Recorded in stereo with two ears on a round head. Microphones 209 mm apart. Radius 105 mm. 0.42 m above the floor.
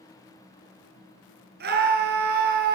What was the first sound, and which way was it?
A scream, 45° right (ahead or behind).